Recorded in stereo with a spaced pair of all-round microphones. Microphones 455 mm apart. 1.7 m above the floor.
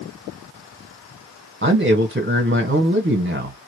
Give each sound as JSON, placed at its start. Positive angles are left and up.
{"t": 1.6, "sound": "a man speaking", "side_deg": -25, "distance_m": 1.1}